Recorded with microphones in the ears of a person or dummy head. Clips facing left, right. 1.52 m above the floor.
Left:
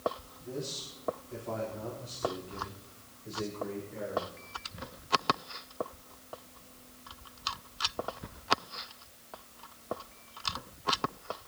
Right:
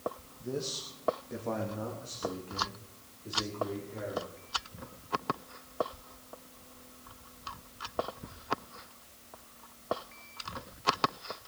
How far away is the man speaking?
About 2.0 m.